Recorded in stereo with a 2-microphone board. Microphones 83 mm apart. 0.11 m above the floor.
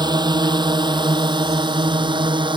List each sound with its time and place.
0.0 s a drone: 60° right (ahead or behind); by 2.6 s 75° right (ahead or behind)